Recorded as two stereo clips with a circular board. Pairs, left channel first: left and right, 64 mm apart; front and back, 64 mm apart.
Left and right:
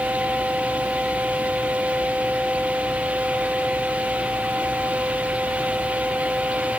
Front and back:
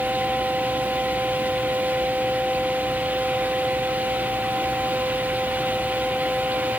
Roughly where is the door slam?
No door slam in this recording.